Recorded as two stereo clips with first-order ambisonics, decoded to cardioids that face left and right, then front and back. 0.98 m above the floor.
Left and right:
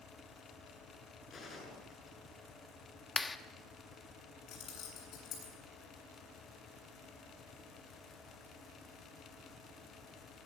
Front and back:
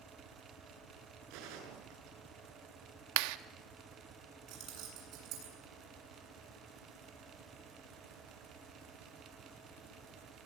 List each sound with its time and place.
1.3 s a gunshot: 160° left, 8 m
3.2 s a clap: 170° left, 1.0 m
4.5 s keys jangling: 135° left, 8.5 m